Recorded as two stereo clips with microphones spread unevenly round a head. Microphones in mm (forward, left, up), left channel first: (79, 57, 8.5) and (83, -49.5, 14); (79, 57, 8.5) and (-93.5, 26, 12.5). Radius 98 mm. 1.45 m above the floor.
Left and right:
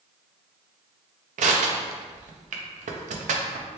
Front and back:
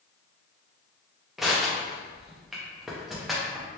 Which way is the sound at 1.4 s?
80° right.